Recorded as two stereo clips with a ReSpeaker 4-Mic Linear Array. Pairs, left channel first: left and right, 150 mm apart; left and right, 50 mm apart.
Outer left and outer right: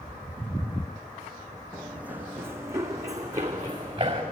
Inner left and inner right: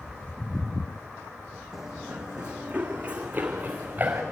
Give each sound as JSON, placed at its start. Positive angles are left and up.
{"t": 1.7, "sound": "running footsteps", "side_deg": -5, "distance_m": 1.5}